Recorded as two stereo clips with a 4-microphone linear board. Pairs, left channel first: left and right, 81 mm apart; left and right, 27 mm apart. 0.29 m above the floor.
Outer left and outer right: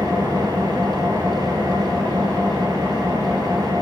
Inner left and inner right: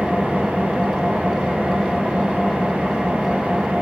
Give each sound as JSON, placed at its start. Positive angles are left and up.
{"t": 0.0, "sound": "an engine running", "side_deg": -60, "distance_m": 7.0}